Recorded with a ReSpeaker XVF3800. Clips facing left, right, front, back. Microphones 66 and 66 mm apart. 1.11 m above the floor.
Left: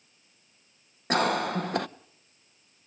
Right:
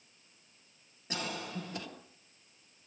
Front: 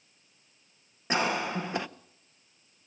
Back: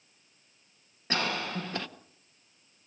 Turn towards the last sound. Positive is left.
turn(degrees=70)